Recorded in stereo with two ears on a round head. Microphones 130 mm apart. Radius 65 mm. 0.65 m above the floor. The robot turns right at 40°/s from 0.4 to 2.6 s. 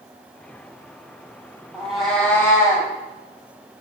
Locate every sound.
1.7 s a cat meowing: 5° right, 1.5 m; by 2.9 s 25° left, 1.5 m